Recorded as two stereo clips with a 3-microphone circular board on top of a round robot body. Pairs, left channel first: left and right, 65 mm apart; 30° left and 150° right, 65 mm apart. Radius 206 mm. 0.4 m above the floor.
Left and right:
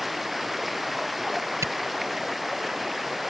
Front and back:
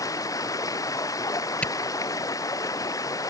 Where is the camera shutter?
45° right.